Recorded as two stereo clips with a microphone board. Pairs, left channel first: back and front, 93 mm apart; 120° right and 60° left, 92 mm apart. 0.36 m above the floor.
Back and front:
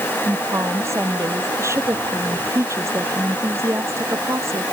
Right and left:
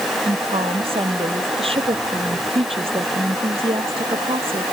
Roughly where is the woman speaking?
Ahead left.